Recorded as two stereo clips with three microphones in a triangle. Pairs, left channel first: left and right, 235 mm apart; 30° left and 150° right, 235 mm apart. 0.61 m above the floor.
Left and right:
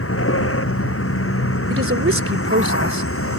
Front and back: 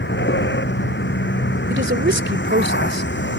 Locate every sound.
0.0 s a vehicle: 70° left
1.7 s a woman speaking: 115° right